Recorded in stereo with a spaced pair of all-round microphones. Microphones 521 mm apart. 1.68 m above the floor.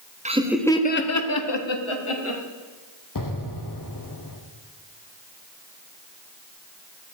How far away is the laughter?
About 0.8 m.